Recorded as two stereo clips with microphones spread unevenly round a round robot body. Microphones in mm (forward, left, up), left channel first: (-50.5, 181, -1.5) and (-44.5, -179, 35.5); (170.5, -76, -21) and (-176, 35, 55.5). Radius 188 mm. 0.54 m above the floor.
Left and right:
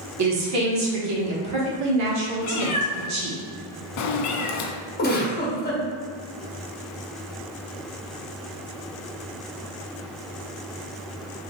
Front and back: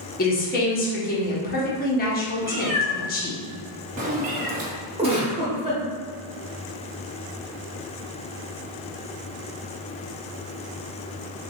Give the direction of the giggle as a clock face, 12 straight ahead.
9 o'clock.